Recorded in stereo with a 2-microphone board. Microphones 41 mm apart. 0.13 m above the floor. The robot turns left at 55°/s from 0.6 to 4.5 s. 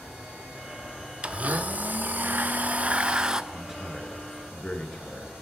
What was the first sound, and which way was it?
A blender, 40° right.